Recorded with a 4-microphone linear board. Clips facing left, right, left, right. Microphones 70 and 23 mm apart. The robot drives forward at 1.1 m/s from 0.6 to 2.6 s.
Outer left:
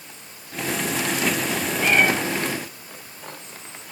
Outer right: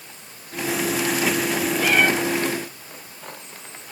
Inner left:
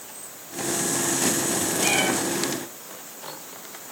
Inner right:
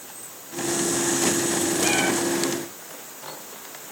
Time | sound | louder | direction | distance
1.8 | a cat meowing | outer left 1 dB, inner left 1 dB | 20° left (ahead or behind) | 2.5 m